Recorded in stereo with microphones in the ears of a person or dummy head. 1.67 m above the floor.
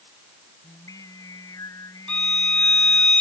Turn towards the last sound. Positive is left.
turn(degrees=0)  # may be behind; listen again after turning